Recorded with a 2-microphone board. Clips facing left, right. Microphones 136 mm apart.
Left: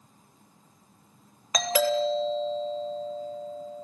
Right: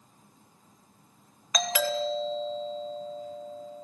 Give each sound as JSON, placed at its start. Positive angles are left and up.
{"t": 1.5, "sound": "a doorbell", "side_deg": 35, "distance_m": 2.0}